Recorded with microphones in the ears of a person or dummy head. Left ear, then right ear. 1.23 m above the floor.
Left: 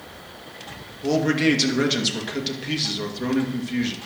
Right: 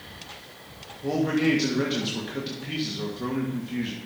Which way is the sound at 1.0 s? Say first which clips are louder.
Left 4 dB; 30° left (ahead or behind).